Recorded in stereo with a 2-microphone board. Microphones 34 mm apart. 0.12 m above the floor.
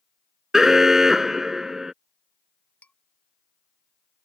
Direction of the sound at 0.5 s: 10° right (ahead or behind).